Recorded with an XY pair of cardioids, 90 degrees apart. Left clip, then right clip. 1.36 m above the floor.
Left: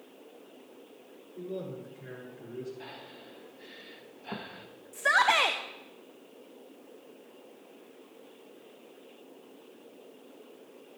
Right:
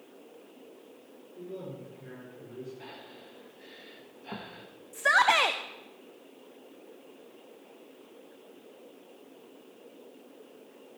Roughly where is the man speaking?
Ahead left.